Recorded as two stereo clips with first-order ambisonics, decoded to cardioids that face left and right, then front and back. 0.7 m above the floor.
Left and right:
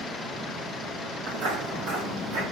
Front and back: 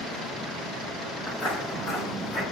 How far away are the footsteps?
About 2.5 m.